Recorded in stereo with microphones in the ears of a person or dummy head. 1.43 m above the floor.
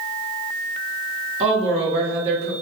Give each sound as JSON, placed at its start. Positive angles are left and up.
{"t": 1.4, "sound": "a woman speaking", "side_deg": -35, "distance_m": 0.8}